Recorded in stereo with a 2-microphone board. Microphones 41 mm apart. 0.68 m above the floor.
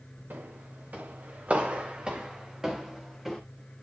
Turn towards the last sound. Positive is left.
turn(degrees=0)  # may be behind; listen again after turning